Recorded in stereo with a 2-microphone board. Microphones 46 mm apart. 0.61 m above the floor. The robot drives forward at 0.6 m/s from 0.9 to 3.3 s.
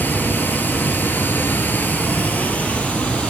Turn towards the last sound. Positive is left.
turn(degrees=25)  # may be behind; listen again after turning